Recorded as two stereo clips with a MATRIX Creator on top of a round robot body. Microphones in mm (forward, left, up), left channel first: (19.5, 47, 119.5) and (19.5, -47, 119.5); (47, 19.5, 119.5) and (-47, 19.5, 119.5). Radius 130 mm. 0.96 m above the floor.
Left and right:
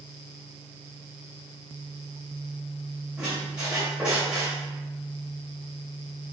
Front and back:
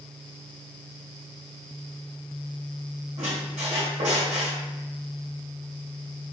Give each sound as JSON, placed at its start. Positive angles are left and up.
{"t": 3.2, "sound": "a squeak", "azimuth_deg": -170, "distance_m": 1.0}